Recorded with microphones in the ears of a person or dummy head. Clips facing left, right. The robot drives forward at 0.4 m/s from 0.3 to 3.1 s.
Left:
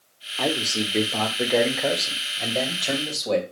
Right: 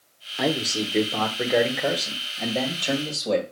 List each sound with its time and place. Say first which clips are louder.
0.4 s a man speaking: right 1 dB; 15° right (ahead or behind), 0.6 m; by 3.4 s 5° right (ahead or behind), 1.6 m